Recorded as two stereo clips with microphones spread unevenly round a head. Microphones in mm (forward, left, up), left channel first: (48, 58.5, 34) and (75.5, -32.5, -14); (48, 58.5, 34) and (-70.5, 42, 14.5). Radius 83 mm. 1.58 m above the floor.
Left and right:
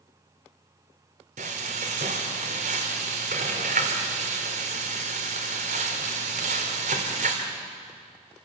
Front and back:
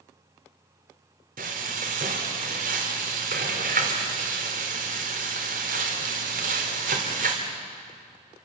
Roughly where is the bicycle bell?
I don't hear a bicycle bell.